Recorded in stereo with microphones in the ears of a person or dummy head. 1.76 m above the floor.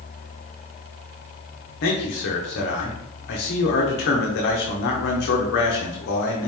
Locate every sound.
1.8 s a man speaking: 55° left (ahead or behind), 0.9 m